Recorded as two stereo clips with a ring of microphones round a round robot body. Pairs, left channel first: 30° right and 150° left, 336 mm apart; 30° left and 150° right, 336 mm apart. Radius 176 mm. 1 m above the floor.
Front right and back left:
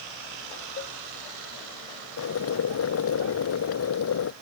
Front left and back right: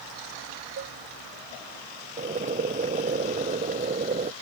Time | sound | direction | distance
0.8 | a cowbell | 90° right | ?
2.2 | boiling | 80° right | ?